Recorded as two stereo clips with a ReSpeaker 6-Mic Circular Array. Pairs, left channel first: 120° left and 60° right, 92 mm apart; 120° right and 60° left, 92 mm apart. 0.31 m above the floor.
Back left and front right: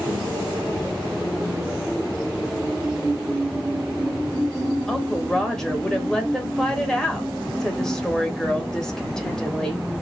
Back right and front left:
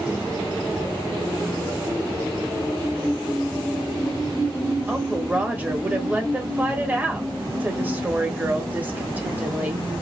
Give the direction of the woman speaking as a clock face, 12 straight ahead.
10 o'clock.